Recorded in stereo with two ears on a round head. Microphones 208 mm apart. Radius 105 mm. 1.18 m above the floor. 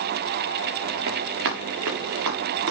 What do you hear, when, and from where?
1.1 s running footsteps: 65° right (ahead or behind), 7.5 m; by 2.7 s 70° right (ahead or behind), 8 m